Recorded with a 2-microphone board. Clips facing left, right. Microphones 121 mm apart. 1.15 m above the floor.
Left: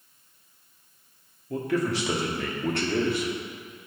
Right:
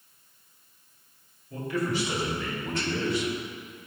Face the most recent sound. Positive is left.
turn(degrees=50)  # may be behind; listen again after turning